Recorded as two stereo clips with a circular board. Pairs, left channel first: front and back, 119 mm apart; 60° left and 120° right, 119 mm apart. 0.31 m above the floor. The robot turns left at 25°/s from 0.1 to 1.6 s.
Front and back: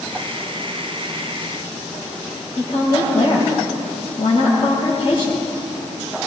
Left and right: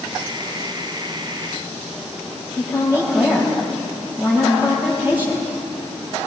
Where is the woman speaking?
45° right, 7.5 m.